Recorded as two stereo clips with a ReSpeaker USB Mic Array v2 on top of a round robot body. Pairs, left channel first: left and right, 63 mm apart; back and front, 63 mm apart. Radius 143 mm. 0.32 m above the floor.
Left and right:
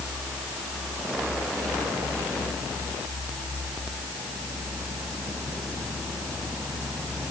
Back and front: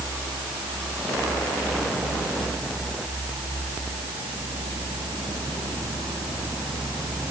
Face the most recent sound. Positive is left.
No sound to turn to.